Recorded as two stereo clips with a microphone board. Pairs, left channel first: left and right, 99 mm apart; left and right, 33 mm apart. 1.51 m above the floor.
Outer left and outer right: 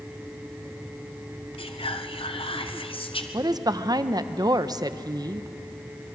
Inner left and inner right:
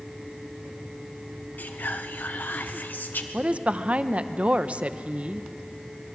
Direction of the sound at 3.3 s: 40° right (ahead or behind).